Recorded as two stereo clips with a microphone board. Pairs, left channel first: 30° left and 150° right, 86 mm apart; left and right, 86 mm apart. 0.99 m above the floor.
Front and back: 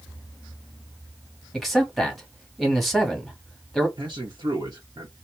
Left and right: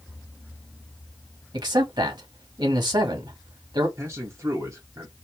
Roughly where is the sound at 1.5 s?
Ahead right.